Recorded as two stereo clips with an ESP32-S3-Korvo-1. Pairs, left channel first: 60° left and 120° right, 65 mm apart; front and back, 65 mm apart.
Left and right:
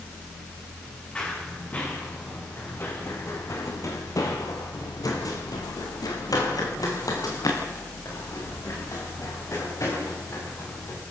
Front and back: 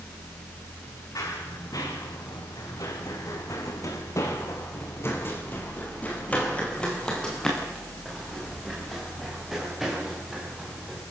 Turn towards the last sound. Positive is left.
turn(degrees=95)